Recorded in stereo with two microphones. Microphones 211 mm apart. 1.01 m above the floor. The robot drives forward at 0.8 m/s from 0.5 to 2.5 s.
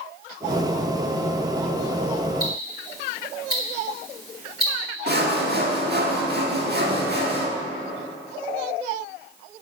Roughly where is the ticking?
Left.